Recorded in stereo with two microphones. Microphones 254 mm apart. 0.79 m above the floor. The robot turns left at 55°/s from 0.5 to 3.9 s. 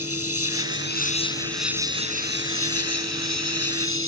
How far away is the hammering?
I don't hear hammering.